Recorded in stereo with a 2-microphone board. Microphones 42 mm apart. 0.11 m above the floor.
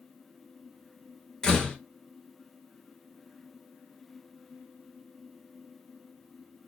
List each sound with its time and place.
1.4 s a door slam: 15° left (ahead or behind), 1.0 m